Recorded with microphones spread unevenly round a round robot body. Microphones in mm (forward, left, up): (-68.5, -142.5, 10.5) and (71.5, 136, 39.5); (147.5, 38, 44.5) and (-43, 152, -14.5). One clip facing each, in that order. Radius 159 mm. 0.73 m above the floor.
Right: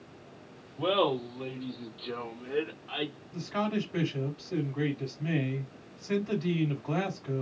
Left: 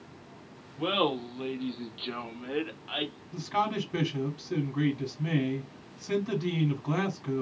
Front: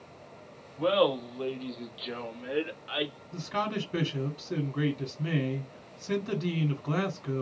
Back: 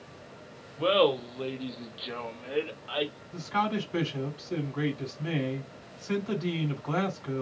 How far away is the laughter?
About 1.2 m.